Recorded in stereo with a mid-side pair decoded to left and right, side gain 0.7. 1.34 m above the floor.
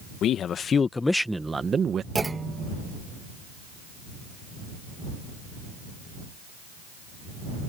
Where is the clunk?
15° right.